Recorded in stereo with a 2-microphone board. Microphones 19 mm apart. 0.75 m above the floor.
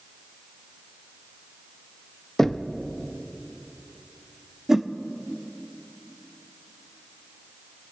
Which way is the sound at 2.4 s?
20° left (ahead or behind).